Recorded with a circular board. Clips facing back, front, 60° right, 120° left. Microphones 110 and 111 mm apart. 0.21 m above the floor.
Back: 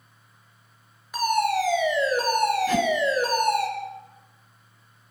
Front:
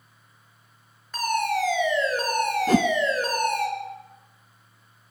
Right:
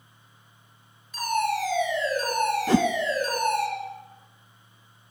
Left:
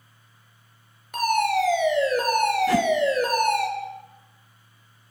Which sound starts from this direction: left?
A fire alarm, at 1.1 s.